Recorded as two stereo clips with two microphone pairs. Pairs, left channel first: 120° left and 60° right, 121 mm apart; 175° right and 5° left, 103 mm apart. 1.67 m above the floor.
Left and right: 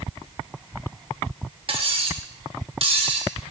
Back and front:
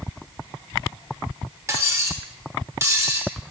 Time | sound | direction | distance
1.7 | cutlery clinking | 45° right | 1.0 m